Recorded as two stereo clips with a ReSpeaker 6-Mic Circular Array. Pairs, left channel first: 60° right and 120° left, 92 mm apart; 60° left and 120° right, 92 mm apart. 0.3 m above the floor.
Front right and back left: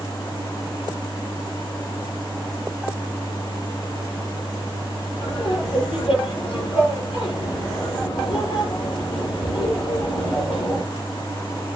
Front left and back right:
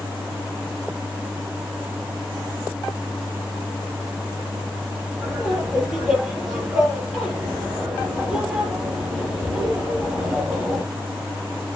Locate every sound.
5.2 s laughter: 30° right, 7 m